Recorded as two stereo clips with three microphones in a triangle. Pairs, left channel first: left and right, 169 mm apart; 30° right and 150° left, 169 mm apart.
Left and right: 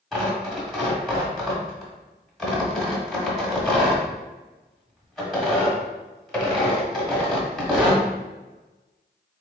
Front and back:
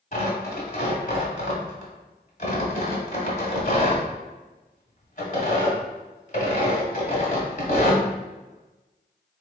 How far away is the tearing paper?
About 1.4 m.